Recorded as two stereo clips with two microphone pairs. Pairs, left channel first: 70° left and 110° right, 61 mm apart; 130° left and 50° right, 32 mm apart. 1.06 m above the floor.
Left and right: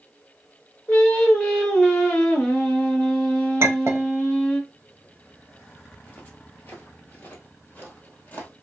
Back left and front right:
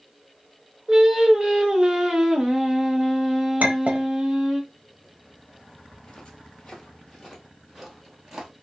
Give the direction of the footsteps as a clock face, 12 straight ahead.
9 o'clock.